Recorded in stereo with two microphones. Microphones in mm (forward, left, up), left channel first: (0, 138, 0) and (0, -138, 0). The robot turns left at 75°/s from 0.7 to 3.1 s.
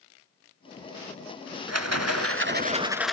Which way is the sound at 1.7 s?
75° right.